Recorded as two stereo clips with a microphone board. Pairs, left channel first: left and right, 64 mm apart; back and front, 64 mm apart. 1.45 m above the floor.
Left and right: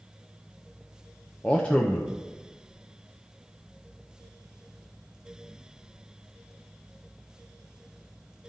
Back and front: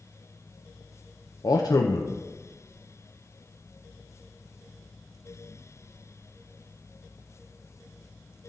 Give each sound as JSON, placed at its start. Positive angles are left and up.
{"t": 1.4, "sound": "a man speaking", "azimuth_deg": 165, "distance_m": 0.6}